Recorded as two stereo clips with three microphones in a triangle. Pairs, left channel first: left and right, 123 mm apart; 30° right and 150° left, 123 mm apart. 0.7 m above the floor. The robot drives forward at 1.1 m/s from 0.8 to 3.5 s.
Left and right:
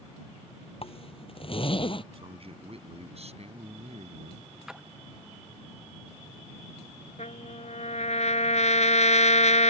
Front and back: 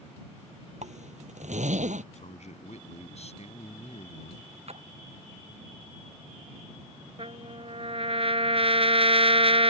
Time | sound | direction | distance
0.8 | a zipper | 130° left | ?
2.1 | a man speaking | 50° right | ?
4.7 | a splash | 175° right | ?
7.2 | a trumpet | 115° left | ?